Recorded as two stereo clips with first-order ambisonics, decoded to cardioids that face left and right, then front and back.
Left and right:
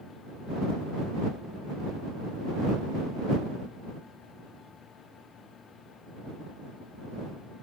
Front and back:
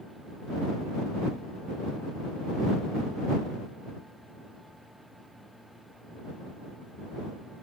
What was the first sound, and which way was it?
Only background noise.